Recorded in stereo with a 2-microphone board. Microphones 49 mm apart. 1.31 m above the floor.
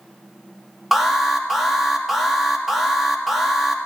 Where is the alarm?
5° right (ahead or behind), 1.9 m.